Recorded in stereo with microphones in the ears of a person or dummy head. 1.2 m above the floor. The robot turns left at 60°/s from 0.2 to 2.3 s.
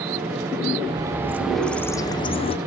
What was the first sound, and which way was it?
A bird, 140° right.